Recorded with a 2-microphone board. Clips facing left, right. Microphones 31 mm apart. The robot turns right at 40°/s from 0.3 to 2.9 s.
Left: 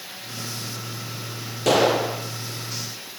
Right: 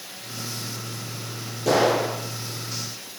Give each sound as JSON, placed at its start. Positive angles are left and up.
{"t": 1.7, "sound": "a gunshot", "side_deg": 75, "distance_m": 7.0}